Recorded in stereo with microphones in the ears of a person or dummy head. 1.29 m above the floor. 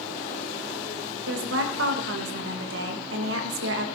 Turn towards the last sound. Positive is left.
turn(degrees=-85)